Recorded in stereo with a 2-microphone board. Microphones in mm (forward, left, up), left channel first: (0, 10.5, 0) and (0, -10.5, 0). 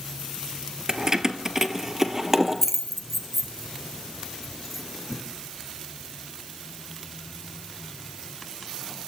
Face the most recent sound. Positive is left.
turn(degrees=-5)  # may be behind; listen again after turning